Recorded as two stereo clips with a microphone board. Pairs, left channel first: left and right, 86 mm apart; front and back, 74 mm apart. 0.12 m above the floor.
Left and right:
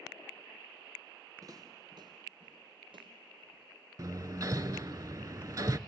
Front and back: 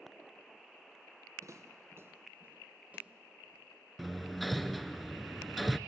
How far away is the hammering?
About 0.5 m.